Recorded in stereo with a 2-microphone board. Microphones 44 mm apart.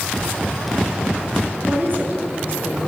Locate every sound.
1.7 s a woman speaking: 45° right (ahead or behind), 7.5 m